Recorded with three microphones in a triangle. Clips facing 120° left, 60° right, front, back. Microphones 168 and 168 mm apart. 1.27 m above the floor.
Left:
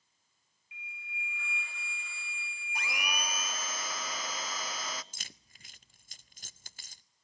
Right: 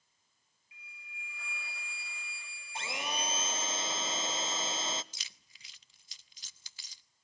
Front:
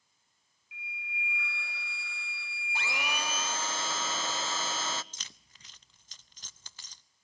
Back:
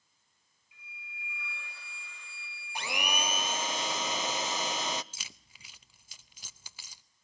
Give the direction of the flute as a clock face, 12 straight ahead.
12 o'clock.